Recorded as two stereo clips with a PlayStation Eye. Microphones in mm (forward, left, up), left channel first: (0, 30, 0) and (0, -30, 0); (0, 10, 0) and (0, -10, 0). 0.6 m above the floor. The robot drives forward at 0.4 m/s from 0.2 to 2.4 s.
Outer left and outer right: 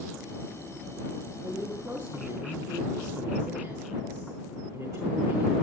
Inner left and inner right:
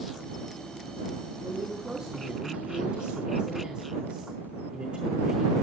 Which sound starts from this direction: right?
A woman speaking, at 1.4 s.